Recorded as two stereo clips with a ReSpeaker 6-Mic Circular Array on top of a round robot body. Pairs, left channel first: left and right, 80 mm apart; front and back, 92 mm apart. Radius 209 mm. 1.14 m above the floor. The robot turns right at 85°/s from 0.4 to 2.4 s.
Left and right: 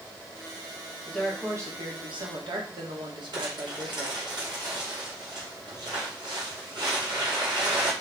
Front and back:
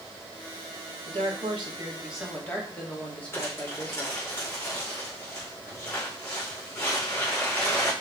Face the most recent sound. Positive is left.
turn(degrees=-65)